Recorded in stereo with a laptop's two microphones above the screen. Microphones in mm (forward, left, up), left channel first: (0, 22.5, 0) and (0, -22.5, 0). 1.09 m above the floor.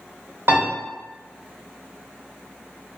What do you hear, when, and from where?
0.5 s a piano: 60° right (ahead or behind), 1.6 m